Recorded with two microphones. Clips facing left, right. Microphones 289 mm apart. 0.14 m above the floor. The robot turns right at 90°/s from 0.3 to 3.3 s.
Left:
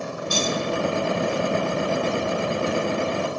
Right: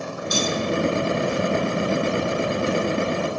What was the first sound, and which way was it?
Cutlery clinking, 30° left (ahead or behind).